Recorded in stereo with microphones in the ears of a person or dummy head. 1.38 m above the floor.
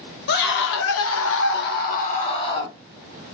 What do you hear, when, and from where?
0.3 s a scream: 60° left (ahead or behind), 0.8 m; by 2.8 s 20° left (ahead or behind), 0.9 m